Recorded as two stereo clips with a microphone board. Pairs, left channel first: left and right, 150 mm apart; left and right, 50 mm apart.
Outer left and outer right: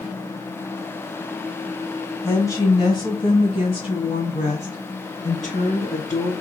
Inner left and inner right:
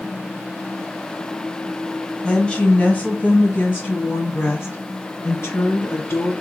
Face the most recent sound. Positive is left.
turn(degrees=50)  # may be behind; listen again after turning